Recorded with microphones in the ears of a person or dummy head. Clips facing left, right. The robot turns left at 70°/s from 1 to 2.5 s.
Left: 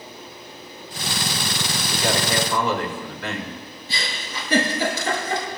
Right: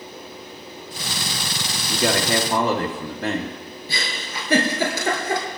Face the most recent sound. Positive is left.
turn(degrees=-75)  # may be behind; listen again after turning